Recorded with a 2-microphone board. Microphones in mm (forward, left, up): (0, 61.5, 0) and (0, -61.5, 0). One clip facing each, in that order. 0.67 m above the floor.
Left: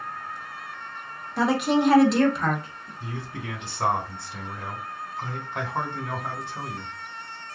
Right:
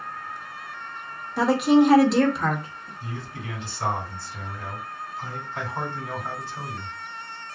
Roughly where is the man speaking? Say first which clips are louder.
Left 2 dB; left.